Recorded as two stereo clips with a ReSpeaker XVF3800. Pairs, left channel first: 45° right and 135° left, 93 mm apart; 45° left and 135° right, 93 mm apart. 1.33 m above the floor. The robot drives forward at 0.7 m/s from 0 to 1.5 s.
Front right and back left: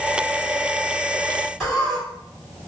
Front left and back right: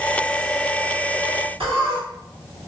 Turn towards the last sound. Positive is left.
turn(degrees=-145)